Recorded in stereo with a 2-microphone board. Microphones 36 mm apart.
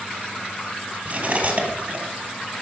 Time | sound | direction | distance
1.1 | cutlery clinking | 35° right (ahead or behind) | 4 m